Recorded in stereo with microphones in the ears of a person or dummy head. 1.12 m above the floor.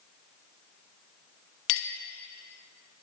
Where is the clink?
80° left, 0.9 m.